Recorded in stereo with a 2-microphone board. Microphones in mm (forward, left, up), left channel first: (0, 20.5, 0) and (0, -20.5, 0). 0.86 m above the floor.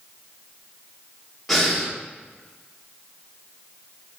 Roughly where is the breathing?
Centre.